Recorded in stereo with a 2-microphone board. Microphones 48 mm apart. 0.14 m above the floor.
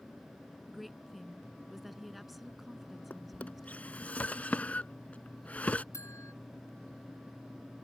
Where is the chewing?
I don't hear chewing.